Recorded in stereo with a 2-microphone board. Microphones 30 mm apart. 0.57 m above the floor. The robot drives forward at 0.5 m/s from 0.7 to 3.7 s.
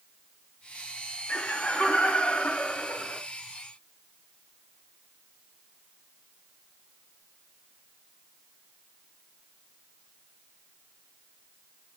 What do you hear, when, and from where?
1.3 s laughter: 50° left (ahead or behind), 1.9 m; by 3.2 s 45° left (ahead or behind), 2 m